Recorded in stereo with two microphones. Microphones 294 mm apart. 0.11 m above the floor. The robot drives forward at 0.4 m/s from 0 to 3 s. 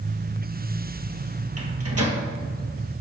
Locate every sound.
1.6 s a microwave: 60° right (ahead or behind), 1.7 m